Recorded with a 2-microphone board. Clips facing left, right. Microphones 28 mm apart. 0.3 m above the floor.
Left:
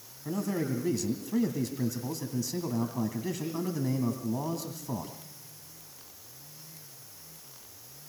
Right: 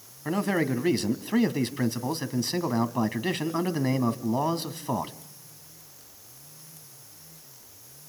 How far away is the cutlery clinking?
No cutlery clinking in this recording.